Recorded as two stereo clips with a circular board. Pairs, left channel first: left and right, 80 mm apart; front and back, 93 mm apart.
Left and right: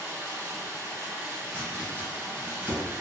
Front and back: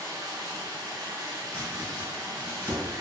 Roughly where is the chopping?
Ahead right.